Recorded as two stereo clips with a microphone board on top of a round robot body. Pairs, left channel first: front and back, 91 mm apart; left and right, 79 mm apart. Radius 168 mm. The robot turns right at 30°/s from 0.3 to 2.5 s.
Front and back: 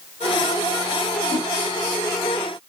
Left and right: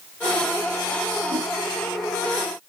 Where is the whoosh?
55° right, 2 m; by 1.5 s 50° right, 2 m.